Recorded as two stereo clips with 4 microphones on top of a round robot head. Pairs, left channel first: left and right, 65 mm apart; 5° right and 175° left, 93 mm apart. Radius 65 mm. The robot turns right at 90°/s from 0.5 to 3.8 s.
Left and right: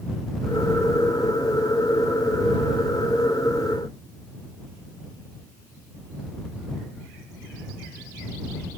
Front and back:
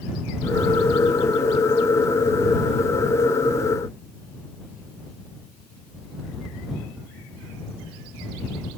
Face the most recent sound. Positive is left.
No sound to turn to.